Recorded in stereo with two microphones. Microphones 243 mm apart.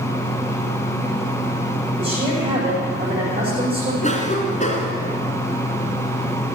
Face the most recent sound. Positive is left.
turn(degrees=30)  # may be behind; listen again after turning